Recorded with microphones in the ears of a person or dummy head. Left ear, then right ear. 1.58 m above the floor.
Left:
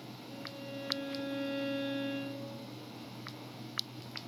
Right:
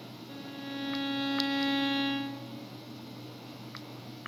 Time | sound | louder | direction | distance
0.3 | a violin | right 3 dB | 65° right (ahead or behind) | 1.0 m